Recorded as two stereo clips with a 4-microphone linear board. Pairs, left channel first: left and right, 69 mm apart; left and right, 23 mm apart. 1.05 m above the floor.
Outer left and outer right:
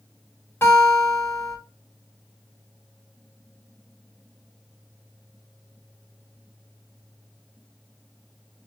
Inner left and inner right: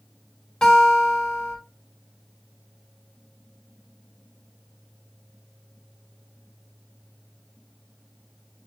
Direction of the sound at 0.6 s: 35° left (ahead or behind).